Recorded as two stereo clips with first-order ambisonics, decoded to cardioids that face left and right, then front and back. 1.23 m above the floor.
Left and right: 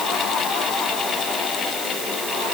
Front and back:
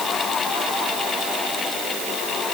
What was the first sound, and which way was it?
Only background noise.